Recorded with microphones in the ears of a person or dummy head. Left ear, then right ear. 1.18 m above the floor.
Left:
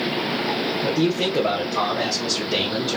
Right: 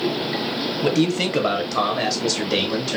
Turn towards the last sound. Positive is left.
turn(degrees=-5)  # may be behind; listen again after turning